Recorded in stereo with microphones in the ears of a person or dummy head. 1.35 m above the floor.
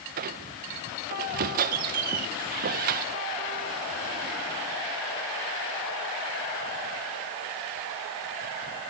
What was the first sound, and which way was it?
A squeak, 45° right (ahead or behind).